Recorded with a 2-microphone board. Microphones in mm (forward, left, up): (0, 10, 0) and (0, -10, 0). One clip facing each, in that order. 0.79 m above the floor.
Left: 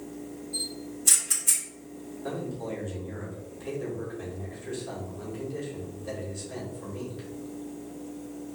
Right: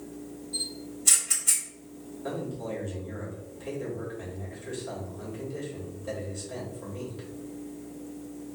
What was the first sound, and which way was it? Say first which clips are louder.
A camera shutter: even; 10° right (ahead or behind).